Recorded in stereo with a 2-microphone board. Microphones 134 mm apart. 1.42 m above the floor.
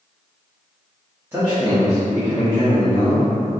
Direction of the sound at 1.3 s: 15° right (ahead or behind).